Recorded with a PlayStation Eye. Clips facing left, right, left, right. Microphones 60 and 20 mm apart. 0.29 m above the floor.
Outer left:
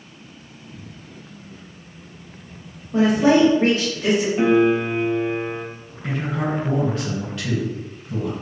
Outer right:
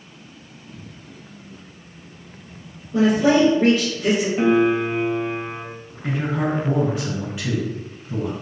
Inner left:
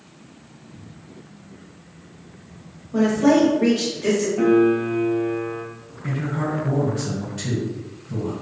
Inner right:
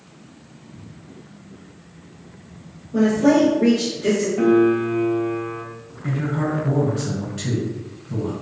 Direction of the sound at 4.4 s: Centre (ahead or behind).